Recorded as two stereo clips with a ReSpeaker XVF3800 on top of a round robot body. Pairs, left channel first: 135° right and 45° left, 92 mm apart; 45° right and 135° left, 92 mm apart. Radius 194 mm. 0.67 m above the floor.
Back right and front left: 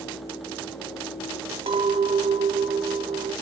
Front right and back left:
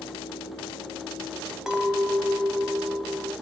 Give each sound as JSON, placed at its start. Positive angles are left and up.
{"t": 1.7, "sound": "a clink", "azimuth_deg": 50, "distance_m": 1.5}